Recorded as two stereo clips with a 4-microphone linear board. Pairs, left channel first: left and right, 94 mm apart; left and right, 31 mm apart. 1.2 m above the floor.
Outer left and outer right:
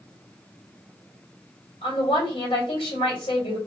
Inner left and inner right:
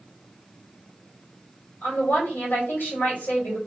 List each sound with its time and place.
1.8 s a woman speaking: 85° left, 2.5 m